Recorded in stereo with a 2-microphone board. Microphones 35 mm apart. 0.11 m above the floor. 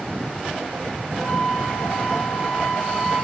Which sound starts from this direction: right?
A flute, at 1.1 s.